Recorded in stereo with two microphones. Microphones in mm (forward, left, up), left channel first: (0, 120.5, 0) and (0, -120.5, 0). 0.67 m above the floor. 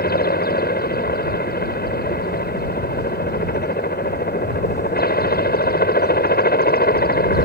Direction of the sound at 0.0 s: 40° left (ahead or behind).